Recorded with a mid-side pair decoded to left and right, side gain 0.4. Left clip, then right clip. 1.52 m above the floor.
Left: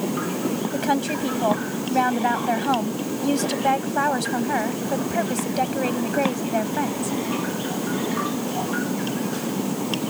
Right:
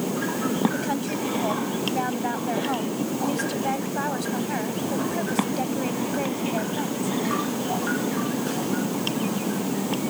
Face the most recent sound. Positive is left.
turn(degrees=50)